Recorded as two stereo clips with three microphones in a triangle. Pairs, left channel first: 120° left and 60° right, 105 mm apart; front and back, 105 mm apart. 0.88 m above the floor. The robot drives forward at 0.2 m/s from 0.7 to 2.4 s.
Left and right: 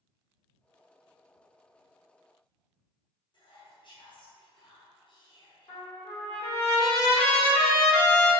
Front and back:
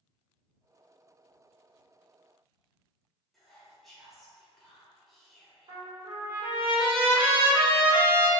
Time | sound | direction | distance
3.3 | whispering | 90° left | 0.7 m
5.7 | a trumpet | 145° left | 1.4 m